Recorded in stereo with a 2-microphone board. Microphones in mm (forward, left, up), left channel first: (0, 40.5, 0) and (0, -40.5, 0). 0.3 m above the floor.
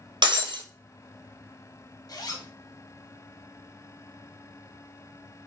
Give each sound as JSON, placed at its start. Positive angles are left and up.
{"t": 0.2, "sound": "breaking glass", "side_deg": -80, "distance_m": 1.0}
{"t": 2.1, "sound": "a zipper", "side_deg": 55, "distance_m": 0.7}